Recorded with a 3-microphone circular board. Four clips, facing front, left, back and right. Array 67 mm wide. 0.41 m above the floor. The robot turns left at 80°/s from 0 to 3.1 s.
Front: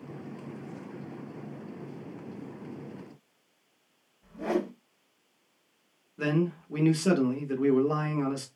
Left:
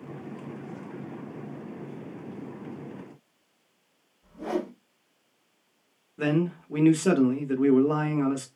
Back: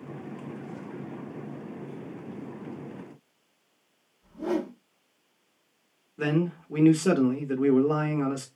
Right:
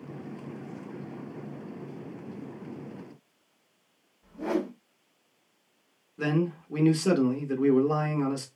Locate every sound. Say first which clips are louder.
4.2 s a whoosh: right 1 dB, back 1 dB; 10° right, 1.1 m
6.2 s a man speaking: left 2 dB, back 1 dB; 125° left, 0.7 m